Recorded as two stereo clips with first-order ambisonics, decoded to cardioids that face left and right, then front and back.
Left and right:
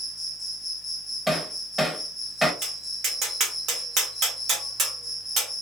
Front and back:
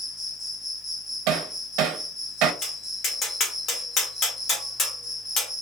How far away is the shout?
I don't hear a shout.